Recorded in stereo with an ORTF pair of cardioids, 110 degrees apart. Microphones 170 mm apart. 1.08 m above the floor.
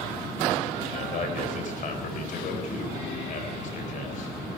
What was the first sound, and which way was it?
A man speaking, 50° left.